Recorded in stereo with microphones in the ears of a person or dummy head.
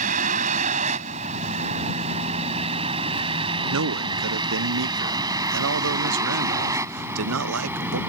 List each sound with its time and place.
0.0 s a vehicle: 35° right (ahead or behind); by 8.1 s 10° right (ahead or behind)
3.7 s a man speaking: 75° right (ahead or behind)